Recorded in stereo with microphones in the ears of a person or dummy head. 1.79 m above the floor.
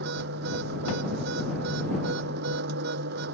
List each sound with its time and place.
0.0 s a machine running: 60° right (ahead or behind)